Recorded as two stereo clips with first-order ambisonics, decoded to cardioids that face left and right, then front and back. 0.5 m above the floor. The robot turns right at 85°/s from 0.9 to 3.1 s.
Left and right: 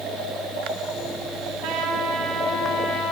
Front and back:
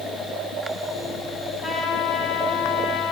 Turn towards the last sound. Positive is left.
turn(degrees=45)